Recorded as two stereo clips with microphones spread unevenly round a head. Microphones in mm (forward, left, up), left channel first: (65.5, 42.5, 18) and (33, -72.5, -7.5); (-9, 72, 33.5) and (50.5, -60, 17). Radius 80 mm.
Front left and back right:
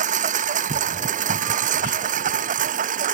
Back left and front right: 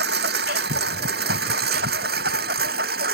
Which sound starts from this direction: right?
A lawn mower, at 0.0 s.